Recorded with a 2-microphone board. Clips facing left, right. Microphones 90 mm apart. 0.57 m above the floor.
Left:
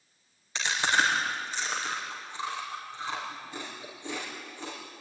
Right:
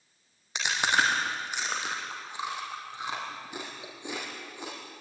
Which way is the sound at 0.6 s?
15° right (ahead or behind).